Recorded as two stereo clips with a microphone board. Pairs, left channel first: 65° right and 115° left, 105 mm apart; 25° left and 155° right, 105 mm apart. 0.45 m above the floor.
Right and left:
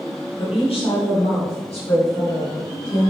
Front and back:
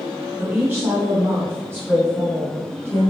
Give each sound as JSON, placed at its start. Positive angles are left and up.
{"t": 0.4, "sound": "a woman speaking", "azimuth_deg": -80, "distance_m": 2.5}